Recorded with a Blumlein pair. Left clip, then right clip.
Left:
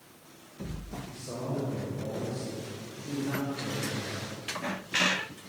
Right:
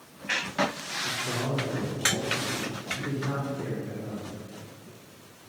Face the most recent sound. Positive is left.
turn(degrees=-30)